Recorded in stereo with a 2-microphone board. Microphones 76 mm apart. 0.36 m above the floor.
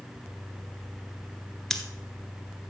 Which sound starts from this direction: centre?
Scissors, at 1.7 s.